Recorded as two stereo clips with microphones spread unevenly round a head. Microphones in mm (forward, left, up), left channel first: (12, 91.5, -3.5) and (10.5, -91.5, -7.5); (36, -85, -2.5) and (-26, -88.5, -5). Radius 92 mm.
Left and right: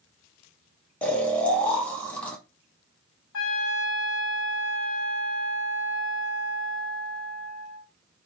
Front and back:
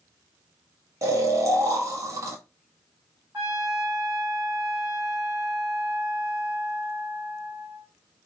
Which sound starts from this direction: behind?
Snoring, at 1.0 s.